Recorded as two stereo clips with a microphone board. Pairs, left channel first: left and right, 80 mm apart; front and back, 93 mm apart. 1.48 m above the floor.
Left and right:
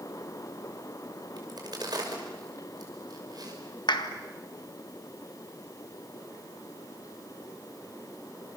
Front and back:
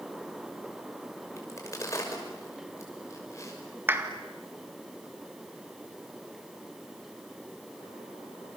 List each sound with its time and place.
1.4 s a crack: 55° right, 6 m
3.9 s a clap: 110° left, 1.9 m